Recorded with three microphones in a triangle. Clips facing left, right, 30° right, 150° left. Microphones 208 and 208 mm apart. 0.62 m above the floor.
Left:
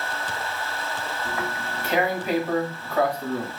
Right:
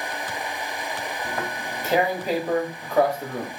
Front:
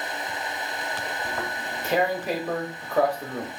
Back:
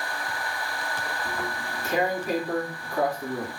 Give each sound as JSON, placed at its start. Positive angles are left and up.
{"t": 1.2, "sound": "tearing paper", "azimuth_deg": -40, "distance_m": 0.9}